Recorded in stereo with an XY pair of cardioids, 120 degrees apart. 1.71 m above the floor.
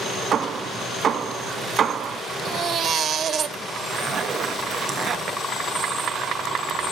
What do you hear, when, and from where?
0.3 s hammering: 40° right, 2.5 m
2.5 s a baby crying: 35° right, 1.6 m
3.9 s a zipper: 40° right, 3 m